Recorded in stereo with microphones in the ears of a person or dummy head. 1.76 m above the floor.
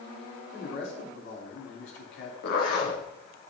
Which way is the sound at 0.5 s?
65° left (ahead or behind).